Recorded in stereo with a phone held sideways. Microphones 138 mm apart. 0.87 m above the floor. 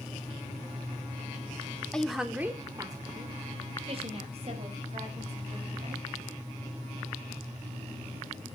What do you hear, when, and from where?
1.9 s a woman speaking: 5° left (ahead or behind), 1.7 m; by 6.0 s 55° right (ahead or behind), 6 m